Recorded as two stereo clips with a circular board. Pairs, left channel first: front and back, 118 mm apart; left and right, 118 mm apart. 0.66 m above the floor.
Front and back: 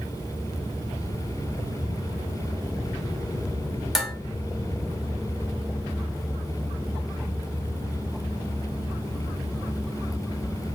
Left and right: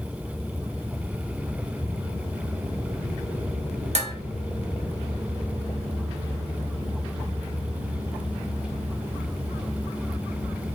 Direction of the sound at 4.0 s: 95° right.